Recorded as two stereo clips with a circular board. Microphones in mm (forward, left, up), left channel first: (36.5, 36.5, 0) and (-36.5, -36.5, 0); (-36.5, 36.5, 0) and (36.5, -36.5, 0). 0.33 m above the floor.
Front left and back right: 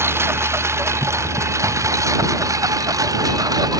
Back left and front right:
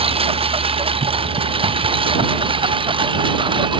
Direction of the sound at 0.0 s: 70° right.